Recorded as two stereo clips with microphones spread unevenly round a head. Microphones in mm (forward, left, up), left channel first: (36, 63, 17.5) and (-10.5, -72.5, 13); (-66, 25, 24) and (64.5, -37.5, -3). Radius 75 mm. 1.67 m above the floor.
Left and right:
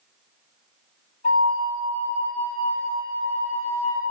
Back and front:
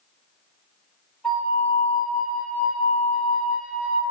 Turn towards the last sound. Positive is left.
turn(degrees=80)